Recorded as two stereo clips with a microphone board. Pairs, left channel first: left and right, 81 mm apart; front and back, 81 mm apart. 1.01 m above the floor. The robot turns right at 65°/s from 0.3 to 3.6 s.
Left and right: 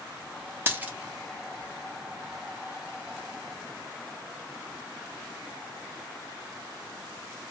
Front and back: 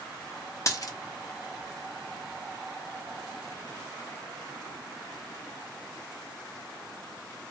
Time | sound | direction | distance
0.7 | a dropped coin | 35° right | 0.7 m